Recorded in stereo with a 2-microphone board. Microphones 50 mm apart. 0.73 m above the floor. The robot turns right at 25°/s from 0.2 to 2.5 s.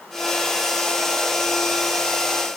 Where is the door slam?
No door slam in this recording.